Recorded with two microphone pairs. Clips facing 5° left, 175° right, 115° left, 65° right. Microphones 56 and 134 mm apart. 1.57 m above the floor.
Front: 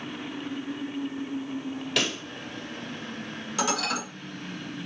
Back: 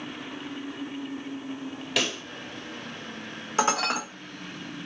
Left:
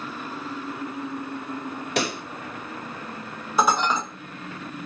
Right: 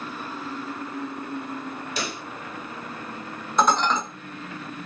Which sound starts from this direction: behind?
Dishes clattering, at 3.6 s.